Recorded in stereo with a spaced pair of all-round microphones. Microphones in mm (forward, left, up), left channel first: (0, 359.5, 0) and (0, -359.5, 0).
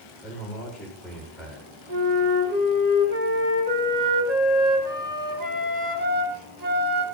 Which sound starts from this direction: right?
A flute, at 1.9 s.